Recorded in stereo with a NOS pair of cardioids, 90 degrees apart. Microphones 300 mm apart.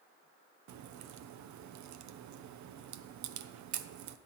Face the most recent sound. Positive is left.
turn(degrees=-70)